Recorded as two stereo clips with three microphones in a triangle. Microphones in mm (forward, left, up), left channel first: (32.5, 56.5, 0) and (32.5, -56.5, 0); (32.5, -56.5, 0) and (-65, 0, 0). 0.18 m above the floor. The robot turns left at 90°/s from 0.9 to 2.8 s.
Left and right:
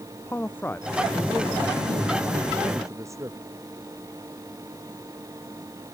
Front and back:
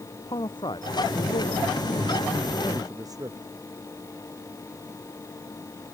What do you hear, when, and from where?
0.3 s a man speaking: 15° left; by 3.4 s 155° right